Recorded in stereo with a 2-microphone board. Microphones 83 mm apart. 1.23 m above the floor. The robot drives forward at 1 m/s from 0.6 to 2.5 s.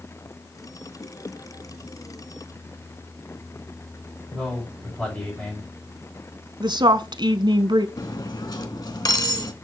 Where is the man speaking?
10° left (ahead or behind), 5.5 m.